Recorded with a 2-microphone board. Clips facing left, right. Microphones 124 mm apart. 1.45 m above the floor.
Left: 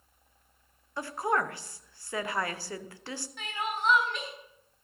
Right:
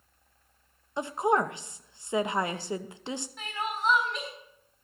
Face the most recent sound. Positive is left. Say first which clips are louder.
# left 2 dB
turn(degrees=-5)  # may be behind; listen again after turning